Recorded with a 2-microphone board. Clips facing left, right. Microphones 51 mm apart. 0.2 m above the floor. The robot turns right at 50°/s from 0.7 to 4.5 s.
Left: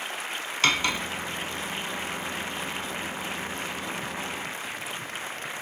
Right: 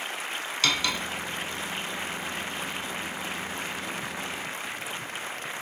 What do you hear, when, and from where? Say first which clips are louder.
0.6 s cutlery clinking: left 3 dB; 35° left (ahead or behind), 0.9 m; by 1.0 s 25° left (ahead or behind), 0.9 m